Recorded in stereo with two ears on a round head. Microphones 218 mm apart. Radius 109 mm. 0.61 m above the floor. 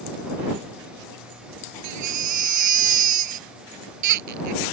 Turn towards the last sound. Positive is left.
turn(degrees=-90)